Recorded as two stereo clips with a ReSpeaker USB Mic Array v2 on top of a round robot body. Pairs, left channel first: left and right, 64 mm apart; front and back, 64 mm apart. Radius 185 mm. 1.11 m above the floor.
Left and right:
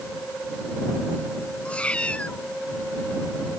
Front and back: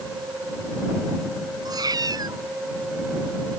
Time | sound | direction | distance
1.6 | a cat meowing | 160° left | ?